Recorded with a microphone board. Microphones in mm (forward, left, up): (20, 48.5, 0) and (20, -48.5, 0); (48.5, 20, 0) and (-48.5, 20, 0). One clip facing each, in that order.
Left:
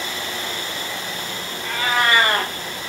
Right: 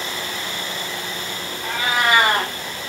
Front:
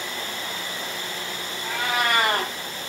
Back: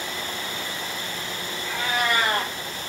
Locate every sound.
1.6 s a cat meowing: 15° right, 1.0 m